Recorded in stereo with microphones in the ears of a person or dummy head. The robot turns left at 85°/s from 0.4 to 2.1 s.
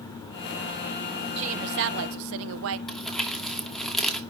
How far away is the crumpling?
About 2 m.